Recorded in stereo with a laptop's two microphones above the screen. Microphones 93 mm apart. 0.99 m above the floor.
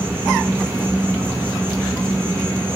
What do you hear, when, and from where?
0.0 s an insect: 25° right (ahead or behind), 1.0 m